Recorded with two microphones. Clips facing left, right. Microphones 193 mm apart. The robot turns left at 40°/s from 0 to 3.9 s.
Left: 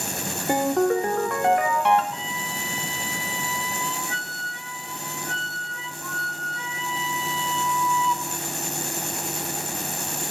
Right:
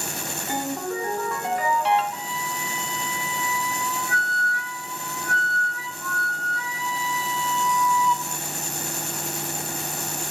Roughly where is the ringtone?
Behind left.